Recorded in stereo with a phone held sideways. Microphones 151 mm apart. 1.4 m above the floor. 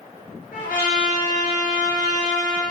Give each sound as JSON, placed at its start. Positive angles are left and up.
{"t": 0.5, "sound": "a trumpet", "side_deg": 80, "distance_m": 4.5}